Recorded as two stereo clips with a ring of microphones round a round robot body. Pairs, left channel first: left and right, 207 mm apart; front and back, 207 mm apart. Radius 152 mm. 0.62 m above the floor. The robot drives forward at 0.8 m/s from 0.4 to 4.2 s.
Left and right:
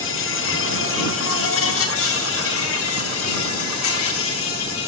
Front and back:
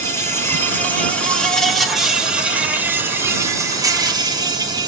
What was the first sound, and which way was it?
An insect, 75° left.